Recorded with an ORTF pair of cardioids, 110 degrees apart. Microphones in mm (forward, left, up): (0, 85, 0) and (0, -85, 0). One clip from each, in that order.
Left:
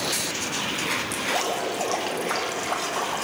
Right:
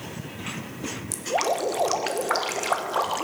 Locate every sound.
1.1 s dripping: 25° right, 1.0 m